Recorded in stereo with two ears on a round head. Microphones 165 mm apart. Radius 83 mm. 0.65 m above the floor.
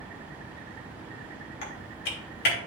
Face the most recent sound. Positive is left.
turn(degrees=60)  # may be behind; listen again after turning